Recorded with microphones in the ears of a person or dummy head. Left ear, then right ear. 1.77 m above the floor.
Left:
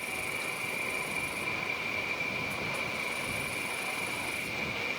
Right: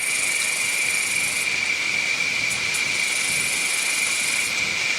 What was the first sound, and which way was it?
An insect, 50° right (ahead or behind).